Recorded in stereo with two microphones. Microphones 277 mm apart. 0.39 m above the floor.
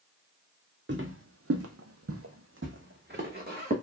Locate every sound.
0.9 s footsteps: 40° right (ahead or behind), 0.7 m; by 3.7 s 30° right (ahead or behind), 1.3 m